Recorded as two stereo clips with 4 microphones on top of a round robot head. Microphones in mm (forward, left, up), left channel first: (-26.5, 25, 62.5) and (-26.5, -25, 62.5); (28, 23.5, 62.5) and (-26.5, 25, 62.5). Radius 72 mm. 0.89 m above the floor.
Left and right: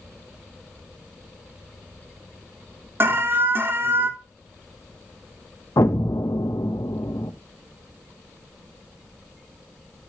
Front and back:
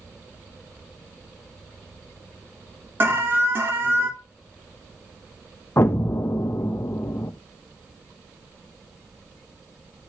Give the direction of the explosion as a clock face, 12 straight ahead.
10 o'clock.